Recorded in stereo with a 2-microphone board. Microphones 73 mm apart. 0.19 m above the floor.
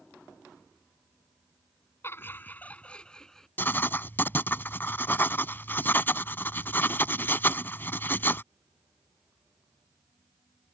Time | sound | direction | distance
2.0 | laughter | 35° left (ahead or behind) | ?
3.6 | writing | 30° left (ahead or behind) | ?